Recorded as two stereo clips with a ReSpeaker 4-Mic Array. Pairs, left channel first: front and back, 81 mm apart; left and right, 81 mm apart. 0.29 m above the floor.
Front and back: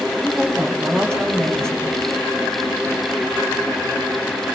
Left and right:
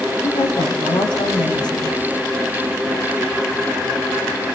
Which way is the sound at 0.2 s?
80° left.